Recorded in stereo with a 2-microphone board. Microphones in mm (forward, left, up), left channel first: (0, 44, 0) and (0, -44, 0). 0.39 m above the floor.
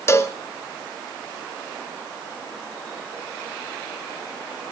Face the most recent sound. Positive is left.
turn(degrees=30)  # may be behind; listen again after turning